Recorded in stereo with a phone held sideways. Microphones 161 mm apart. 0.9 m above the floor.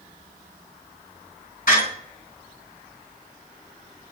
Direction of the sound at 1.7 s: 60° left (ahead or behind).